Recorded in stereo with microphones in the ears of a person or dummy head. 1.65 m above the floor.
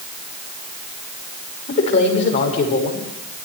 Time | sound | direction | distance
1.7 | a man speaking | 35° left (ahead or behind) | 6.5 m